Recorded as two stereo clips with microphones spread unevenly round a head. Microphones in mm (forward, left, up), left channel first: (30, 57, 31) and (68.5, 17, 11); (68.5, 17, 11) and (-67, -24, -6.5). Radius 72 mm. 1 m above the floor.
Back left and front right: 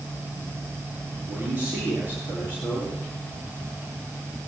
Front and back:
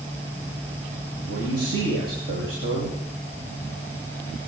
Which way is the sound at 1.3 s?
105° right.